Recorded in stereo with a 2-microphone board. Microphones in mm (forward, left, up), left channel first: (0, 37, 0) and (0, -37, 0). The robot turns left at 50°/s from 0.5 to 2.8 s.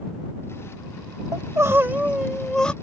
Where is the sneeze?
No sneeze in this recording.